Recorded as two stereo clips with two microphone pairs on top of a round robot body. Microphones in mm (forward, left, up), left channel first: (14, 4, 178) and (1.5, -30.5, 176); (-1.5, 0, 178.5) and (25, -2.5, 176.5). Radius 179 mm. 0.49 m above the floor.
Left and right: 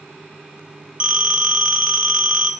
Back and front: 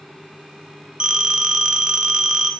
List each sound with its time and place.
1.0 s a phone ringing: 50° right, 1.0 m